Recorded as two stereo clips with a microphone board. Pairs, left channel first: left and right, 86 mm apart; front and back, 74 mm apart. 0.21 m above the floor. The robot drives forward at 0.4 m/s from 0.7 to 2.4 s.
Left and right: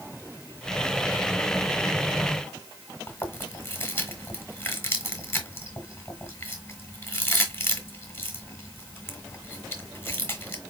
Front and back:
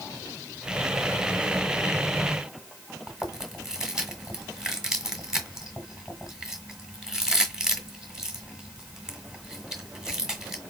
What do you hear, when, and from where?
3.1 s chewing: 110° left, 1.6 m